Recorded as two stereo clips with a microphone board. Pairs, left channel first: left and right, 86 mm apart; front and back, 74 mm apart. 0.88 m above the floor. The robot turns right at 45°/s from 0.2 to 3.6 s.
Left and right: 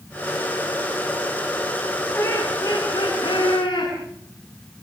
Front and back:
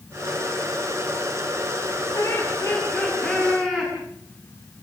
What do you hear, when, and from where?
2.1 s laughter: 30° left, 8 m; by 3.9 s 95° left, 8 m